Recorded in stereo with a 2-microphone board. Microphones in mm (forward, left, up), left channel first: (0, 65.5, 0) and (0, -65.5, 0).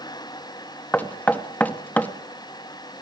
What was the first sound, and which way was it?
Knocking, 10° left (ahead or behind).